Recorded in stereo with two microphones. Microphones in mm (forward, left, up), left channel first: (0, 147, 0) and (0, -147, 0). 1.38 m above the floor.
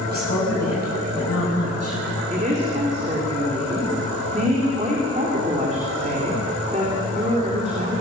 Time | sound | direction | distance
0.1 | a woman speaking | 70° left (ahead or behind) | 8 m
2.3 | a woman speaking | 25° right (ahead or behind) | 3.5 m